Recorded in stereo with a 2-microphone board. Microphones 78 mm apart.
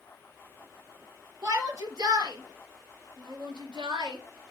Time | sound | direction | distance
1.4 | a shout | 45° right (ahead or behind) | 4 m